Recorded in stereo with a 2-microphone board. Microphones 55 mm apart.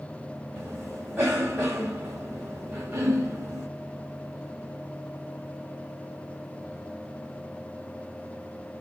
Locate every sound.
0.6 s a cough: 45° right (ahead or behind), 2.5 m